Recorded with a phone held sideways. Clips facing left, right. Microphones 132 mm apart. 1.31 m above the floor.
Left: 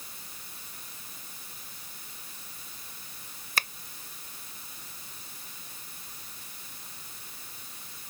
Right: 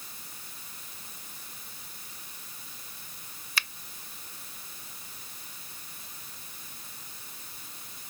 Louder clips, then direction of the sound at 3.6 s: Left 3 dB; 50° left (ahead or behind).